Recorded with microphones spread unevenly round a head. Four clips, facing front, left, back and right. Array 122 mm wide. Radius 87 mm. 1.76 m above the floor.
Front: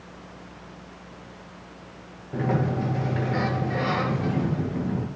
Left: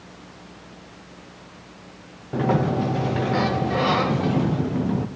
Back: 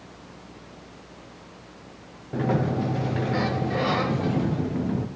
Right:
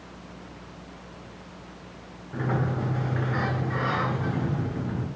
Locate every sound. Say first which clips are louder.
2.3 s a sliding door: left 7 dB, back 1 dB; 155° left, 1.6 m